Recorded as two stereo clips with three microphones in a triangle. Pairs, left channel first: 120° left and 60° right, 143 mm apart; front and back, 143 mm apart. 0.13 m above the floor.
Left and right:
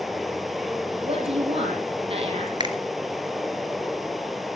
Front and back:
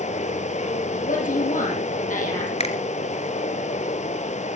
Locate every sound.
0.0 s running water: 30° left, 1.2 m
1.0 s a woman speaking: 15° right, 4.5 m
2.6 s a finger snap: 15° right, 2 m